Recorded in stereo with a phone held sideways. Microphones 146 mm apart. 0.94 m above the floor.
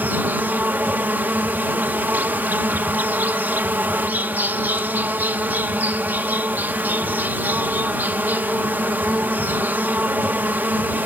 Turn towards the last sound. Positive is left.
turn(degrees=-15)  # may be behind; listen again after turning